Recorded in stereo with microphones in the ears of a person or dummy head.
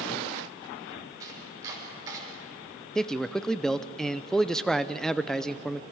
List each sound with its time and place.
1.2 s chopping: 25° right (ahead or behind), 5 m
3.0 s a man speaking: 5° left (ahead or behind), 0.5 m